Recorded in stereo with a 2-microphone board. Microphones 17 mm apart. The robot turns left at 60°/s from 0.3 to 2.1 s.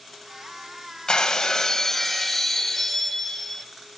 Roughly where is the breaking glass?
Left.